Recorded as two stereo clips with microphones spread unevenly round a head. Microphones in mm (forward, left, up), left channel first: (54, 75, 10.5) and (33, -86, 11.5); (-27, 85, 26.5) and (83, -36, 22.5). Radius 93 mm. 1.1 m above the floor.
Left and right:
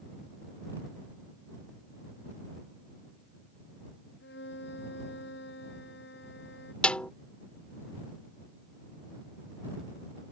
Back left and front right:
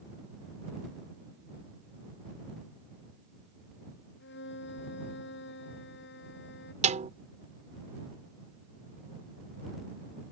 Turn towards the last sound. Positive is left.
turn(degrees=0)